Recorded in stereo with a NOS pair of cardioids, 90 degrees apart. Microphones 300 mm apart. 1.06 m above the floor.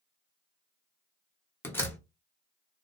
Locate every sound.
1.6 s a door slam: 5° left, 0.8 m